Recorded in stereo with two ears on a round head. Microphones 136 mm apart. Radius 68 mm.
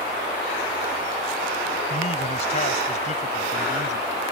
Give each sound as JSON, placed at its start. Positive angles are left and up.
{"t": 1.9, "sound": "a man speaking", "side_deg": 45}